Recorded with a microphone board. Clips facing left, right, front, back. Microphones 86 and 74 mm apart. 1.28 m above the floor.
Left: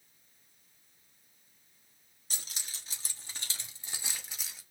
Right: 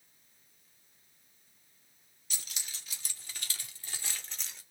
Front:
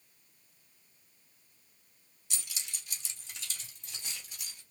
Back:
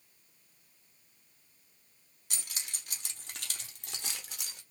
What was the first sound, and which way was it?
Keys jangling, 140° left.